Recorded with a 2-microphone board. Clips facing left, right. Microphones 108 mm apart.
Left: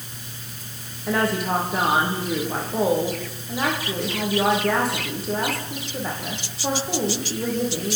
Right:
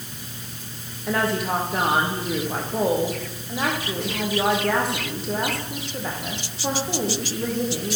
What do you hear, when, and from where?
1.1 s a woman speaking: centre (ahead or behind), 9 m